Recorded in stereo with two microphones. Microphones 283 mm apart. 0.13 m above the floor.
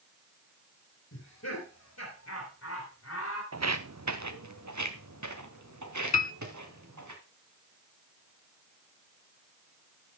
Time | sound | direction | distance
1.1 | laughter | 65° left (ahead or behind) | 3.5 m
3.5 | footsteps | 60° right (ahead or behind) | 0.8 m
6.1 | a piano | 70° left (ahead or behind) | 0.6 m